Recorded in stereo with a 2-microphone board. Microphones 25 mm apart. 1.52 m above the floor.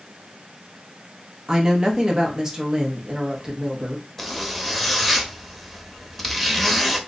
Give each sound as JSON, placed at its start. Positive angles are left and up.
{"t": 1.5, "sound": "a woman speaking", "side_deg": -20, "distance_m": 0.8}
{"t": 4.2, "sound": "a zipper", "side_deg": 0, "distance_m": 0.5}